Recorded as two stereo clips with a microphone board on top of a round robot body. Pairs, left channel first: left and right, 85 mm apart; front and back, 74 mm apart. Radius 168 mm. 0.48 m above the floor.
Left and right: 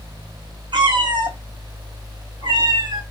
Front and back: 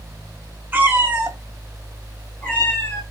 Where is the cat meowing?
115° right, 2.5 m; by 3.0 s 55° right, 2.5 m.